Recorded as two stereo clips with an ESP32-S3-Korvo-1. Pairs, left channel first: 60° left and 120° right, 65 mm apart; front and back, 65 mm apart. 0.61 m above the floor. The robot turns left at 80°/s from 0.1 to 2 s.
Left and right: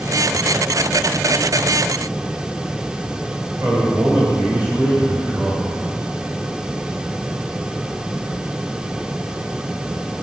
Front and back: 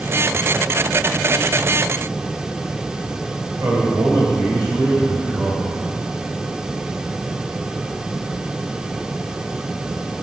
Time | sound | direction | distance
3.6 | a man speaking | straight behind | 2.5 m